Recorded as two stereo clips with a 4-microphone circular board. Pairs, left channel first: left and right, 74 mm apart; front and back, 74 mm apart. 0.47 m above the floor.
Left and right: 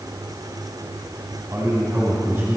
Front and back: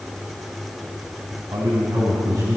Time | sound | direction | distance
1.5 | a man speaking | 145° right | 3.5 m